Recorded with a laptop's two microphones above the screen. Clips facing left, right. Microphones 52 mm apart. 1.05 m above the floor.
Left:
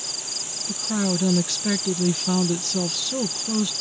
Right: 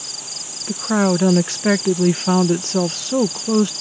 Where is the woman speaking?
45° right (ahead or behind).